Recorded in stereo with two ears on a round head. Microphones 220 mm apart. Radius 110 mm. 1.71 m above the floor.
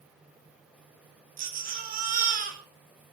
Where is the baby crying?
35° right (ahead or behind), 2.5 m.